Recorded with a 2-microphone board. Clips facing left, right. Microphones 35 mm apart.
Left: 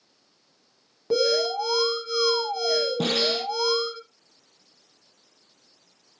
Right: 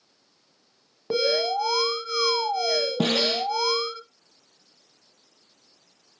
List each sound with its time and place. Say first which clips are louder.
1.1 s an alarm: left 1 dB; 20° right (ahead or behind), 1.0 m
3.0 s a snare drum: right 1 dB; 40° right (ahead or behind), 1.7 m